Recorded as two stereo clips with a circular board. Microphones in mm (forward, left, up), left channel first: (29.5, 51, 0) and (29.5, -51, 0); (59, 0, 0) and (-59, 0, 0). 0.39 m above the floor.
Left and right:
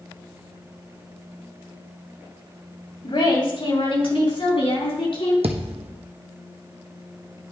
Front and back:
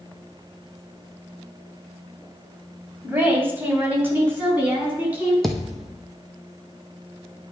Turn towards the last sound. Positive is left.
turn(degrees=-90)